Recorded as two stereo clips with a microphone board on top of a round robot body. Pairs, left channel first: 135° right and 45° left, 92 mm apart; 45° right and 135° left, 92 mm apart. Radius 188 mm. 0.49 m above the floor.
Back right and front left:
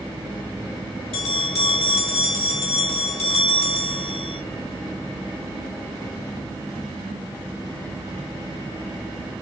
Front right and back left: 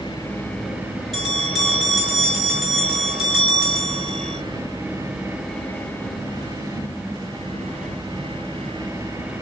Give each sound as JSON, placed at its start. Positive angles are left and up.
{"t": 1.1, "sound": "a bell", "azimuth_deg": -140, "distance_m": 8.0}